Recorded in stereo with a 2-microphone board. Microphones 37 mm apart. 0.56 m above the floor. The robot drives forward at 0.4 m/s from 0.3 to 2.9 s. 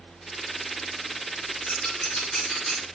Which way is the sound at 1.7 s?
25° left (ahead or behind).